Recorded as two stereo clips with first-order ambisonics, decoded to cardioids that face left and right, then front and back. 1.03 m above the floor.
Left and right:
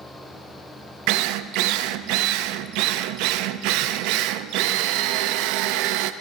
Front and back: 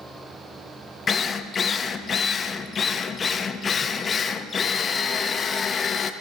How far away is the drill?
About 0.5 m.